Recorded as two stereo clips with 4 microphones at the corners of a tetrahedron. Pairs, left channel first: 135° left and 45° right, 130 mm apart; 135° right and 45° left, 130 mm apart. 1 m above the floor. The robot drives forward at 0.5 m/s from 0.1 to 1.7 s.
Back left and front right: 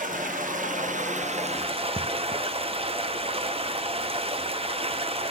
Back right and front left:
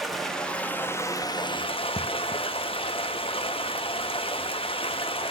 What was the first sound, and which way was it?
Running water, 45° right.